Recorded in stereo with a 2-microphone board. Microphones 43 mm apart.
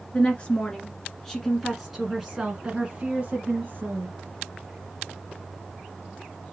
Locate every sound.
0.1 s a woman speaking: 30° left (ahead or behind), 1.7 m; by 4.1 s 40° right (ahead or behind), 1.8 m